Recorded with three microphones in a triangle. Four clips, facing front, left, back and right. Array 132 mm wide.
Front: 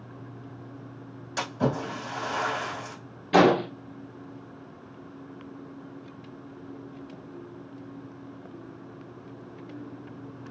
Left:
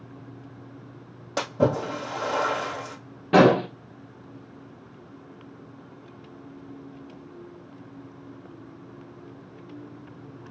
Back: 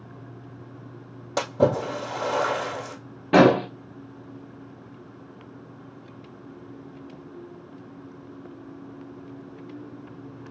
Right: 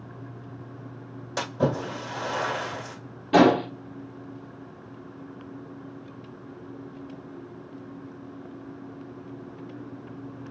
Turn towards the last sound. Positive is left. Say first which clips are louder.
# left 1 dB, back 3 dB
turn(degrees=150)